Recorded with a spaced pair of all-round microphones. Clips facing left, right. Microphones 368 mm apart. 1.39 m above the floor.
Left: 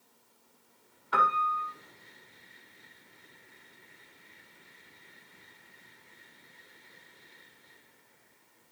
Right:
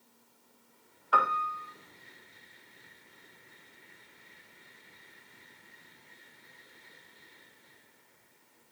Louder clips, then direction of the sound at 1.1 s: Even; 35° left (ahead or behind).